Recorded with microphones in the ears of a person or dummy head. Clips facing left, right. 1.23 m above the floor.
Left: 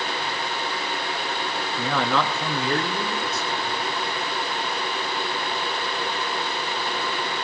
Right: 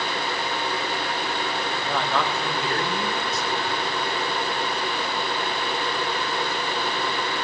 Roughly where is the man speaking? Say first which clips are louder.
Left 3 dB; left.